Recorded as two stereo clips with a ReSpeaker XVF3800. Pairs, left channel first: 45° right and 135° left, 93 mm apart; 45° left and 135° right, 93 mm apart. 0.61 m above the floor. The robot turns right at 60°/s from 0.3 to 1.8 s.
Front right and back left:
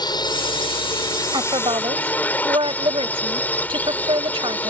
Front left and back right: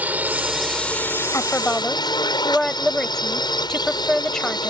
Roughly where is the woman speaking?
Left.